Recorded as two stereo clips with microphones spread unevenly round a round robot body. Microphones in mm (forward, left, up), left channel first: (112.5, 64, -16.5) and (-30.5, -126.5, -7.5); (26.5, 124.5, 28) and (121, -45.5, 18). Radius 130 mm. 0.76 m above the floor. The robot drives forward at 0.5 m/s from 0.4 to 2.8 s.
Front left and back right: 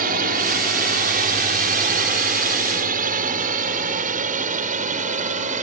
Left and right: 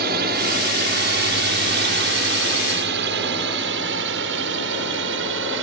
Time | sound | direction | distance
0.0 | a drone | 85° right | ?